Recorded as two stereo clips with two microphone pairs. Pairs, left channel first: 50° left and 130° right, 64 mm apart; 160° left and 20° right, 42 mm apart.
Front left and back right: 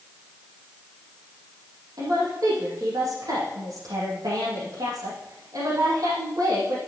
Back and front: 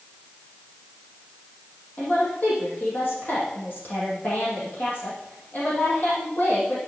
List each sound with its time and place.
2.0 s a woman speaking: 155° right, 6 m